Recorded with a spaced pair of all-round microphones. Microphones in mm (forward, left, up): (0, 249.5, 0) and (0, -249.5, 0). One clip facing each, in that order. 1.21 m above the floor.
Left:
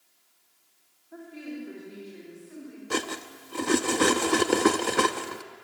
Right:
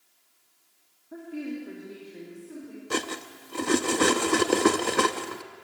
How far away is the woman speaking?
About 2.5 m.